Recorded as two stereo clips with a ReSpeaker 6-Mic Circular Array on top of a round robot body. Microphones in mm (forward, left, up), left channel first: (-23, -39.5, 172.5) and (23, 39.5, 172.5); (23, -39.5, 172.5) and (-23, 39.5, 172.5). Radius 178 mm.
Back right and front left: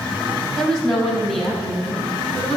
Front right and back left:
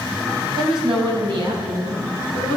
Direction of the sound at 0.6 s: 155° left.